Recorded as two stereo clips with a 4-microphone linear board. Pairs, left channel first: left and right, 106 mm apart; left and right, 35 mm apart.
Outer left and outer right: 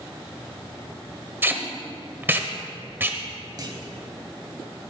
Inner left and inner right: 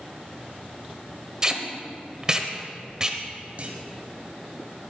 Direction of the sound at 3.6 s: 45° right (ahead or behind).